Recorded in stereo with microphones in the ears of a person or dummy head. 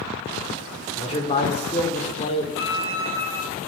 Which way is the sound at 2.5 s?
70° left (ahead or behind).